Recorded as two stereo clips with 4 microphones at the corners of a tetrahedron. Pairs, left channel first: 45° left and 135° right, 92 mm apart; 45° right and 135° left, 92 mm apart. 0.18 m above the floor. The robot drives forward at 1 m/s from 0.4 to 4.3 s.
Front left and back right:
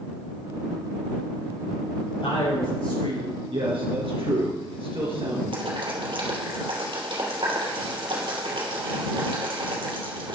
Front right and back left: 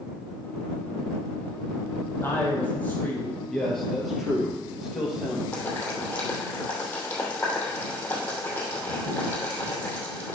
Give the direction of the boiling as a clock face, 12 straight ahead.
4 o'clock.